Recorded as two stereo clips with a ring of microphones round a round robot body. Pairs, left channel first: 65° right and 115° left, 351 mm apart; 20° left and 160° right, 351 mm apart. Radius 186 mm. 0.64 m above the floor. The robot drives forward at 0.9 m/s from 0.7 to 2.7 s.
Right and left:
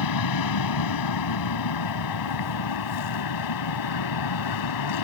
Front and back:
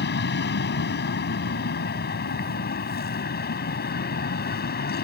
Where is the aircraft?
40° right.